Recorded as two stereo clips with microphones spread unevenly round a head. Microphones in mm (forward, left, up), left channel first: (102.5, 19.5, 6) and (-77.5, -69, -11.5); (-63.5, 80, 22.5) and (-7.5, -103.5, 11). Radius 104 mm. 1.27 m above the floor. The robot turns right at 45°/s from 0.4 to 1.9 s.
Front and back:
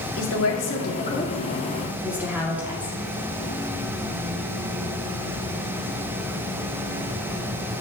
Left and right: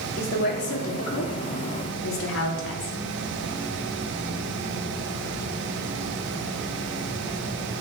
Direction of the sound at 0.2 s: 55° left.